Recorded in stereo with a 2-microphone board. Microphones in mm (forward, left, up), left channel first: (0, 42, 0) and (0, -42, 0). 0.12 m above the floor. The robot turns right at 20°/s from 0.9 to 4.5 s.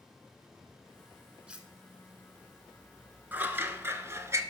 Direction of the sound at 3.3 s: 20° right (ahead or behind).